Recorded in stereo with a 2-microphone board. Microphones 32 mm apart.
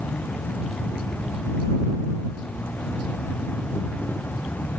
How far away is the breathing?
I don't hear breathing.